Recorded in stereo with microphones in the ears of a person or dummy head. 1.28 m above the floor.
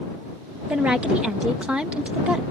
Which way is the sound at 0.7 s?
5° right (ahead or behind).